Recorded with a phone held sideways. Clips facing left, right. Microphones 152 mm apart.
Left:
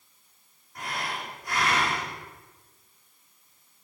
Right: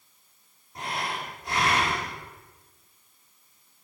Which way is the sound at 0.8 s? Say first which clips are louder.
Right 2 dB; 25° right (ahead or behind).